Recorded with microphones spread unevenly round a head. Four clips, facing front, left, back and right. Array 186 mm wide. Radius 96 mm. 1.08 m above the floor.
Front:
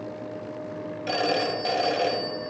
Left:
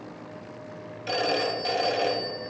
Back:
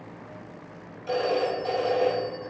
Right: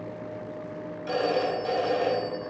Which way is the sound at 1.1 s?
20° left.